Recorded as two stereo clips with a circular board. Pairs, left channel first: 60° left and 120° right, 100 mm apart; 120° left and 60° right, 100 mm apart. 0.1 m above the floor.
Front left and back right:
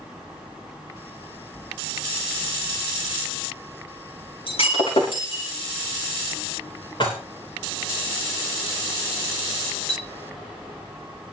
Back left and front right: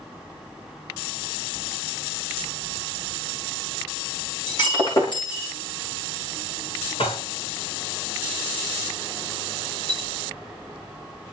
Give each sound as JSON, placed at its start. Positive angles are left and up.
{"t": 4.5, "sound": "breaking glass", "azimuth_deg": 80, "distance_m": 5.0}
{"t": 7.0, "sound": "dishes clattering", "azimuth_deg": 100, "distance_m": 6.5}
{"t": 9.9, "sound": "a clink", "azimuth_deg": 155, "distance_m": 4.5}